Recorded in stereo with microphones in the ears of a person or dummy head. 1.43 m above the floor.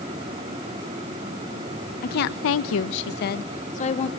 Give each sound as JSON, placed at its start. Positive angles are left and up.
{"t": 2.0, "sound": "a woman speaking", "side_deg": 45, "distance_m": 1.2}